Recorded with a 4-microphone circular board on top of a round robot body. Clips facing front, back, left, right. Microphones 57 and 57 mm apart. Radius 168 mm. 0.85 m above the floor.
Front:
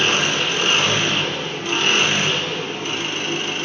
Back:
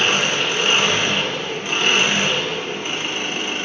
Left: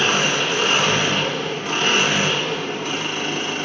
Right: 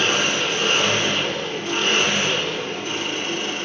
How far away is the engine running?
About 1.0 m.